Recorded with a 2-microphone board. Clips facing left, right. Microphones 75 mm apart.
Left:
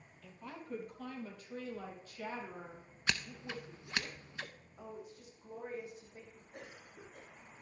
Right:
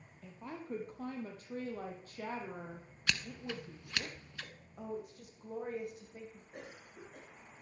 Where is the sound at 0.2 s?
25° right (ahead or behind), 3 m; by 4.1 s 55° right (ahead or behind), 4 m.